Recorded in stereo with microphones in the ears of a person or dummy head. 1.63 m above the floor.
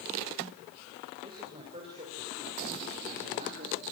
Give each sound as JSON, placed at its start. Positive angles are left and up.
{"t": 1.2, "sound": "a man speaking", "side_deg": -30, "distance_m": 6.0}